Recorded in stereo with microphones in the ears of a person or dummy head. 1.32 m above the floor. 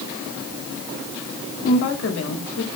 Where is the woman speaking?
85° left, 4.5 m.